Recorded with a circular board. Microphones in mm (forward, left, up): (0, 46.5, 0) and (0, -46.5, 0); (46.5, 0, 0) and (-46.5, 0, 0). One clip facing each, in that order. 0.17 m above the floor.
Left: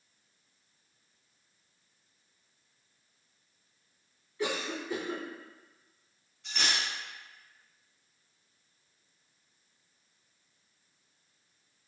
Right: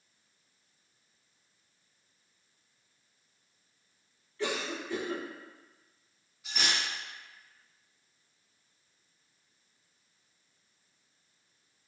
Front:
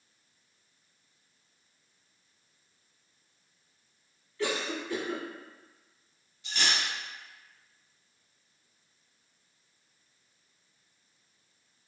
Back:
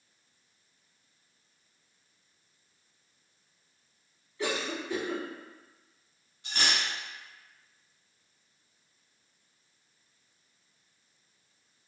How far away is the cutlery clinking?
About 0.9 m.